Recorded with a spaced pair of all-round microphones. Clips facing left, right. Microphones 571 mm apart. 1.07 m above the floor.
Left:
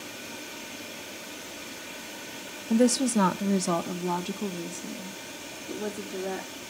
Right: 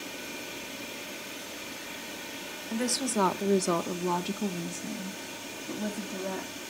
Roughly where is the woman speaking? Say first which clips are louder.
Left 9 dB; left.